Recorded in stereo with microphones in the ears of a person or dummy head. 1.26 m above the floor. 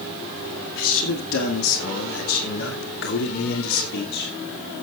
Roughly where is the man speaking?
Left.